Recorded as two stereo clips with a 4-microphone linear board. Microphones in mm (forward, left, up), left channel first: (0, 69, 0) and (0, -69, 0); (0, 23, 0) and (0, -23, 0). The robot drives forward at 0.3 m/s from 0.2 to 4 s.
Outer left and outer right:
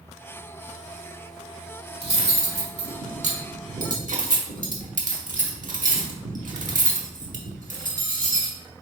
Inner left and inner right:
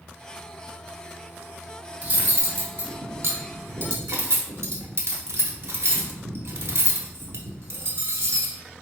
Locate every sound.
2.0 s cutlery clinking: 45° right (ahead or behind), 1.2 m; by 8.6 s 70° right (ahead or behind), 0.9 m